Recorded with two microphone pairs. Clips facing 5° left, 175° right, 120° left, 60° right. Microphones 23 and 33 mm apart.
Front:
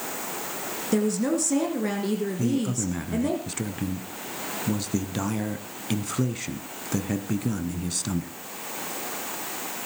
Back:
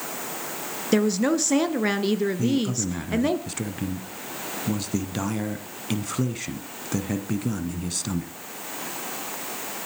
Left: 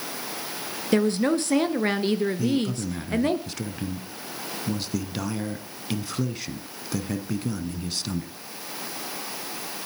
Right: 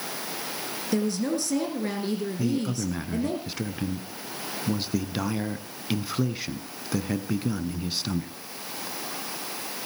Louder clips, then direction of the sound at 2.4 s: Back 2 dB, left 2 dB; 100° right.